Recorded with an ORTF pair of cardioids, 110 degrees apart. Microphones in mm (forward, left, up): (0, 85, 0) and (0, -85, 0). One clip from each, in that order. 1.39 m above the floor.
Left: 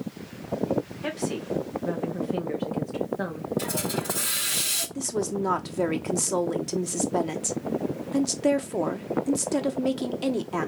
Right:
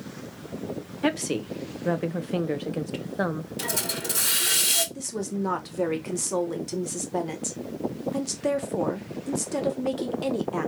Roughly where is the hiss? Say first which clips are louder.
Right 1 dB; ahead right.